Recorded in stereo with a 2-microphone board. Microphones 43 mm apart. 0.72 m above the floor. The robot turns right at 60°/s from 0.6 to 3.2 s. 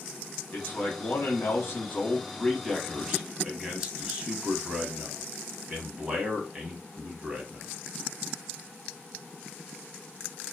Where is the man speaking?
55° left, 1.0 m; by 7.7 s 145° right, 1.0 m.